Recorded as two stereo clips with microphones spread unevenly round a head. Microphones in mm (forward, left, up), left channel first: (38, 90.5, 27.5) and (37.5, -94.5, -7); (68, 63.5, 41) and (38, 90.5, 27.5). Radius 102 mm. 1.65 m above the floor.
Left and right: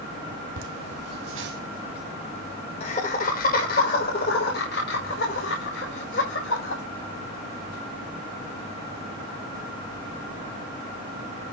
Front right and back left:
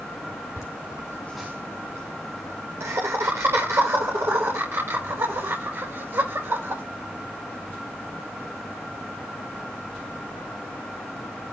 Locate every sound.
0.6 s laughter: 90° right, 1.9 m; by 6.8 s 130° left, 8.5 m